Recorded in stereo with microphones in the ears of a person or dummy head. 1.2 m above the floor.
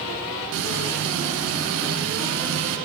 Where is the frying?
75° right (ahead or behind), 9.5 m.